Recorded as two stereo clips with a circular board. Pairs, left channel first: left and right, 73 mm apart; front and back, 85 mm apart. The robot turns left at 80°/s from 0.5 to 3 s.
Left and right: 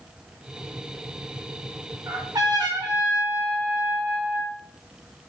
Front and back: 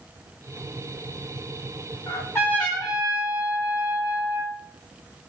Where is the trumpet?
30° right, 4 m; by 4.5 s 105° right, 4 m.